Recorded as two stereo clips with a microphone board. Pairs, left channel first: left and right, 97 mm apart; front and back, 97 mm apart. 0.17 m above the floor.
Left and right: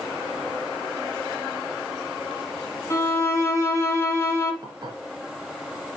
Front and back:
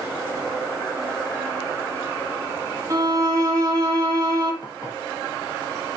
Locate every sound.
2.9 s a violin: 140° left, 2.5 m
4.6 s dishes clattering: 45° right, 2.5 m